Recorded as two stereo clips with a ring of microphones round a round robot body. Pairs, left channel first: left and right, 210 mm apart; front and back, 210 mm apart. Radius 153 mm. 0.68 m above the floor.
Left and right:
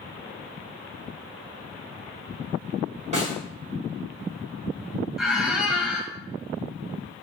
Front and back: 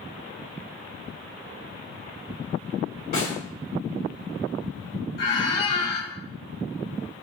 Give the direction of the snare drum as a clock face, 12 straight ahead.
1 o'clock.